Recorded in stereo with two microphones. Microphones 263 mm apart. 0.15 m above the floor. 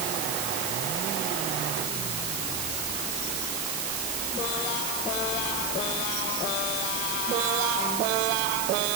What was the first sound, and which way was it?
Only background noise.